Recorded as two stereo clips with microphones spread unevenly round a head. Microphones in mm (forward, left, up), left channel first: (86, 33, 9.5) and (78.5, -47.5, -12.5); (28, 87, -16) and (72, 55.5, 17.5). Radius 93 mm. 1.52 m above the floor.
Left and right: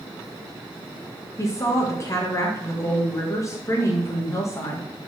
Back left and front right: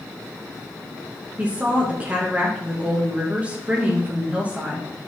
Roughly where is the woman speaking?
Ahead left.